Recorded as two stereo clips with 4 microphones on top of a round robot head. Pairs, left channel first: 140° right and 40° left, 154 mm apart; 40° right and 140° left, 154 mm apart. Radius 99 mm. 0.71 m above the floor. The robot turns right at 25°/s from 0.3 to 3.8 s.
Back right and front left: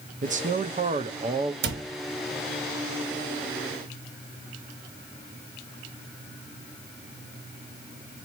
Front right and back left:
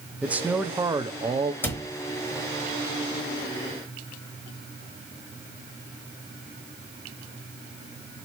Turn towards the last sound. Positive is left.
turn(degrees=90)